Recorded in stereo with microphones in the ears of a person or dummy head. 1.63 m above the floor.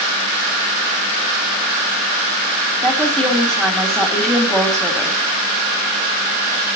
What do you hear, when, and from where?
2.8 s a woman speaking: 5° left (ahead or behind), 3.5 m